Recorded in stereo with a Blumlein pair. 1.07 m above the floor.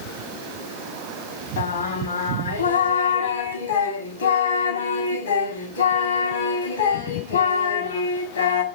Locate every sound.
1.6 s singing: 70° left, 1.3 m